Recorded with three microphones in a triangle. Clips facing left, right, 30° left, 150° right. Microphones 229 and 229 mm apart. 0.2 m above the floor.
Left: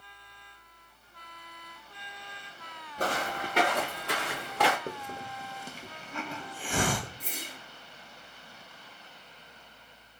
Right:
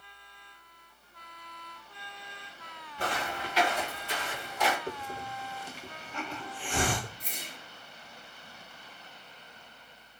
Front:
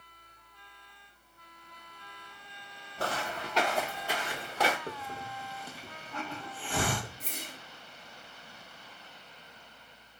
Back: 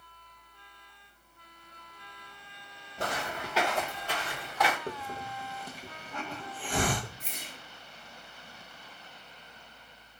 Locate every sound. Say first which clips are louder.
3.0 s footsteps: left 3 dB, even; 140° left, 1.1 m; by 4.8 s 80° left, 0.7 m
4.9 s a hiss: even, back 2 dB; 140° left, 0.8 m
7.2 s a whoosh: left 3 dB, front 2 dB; 65° left, 0.7 m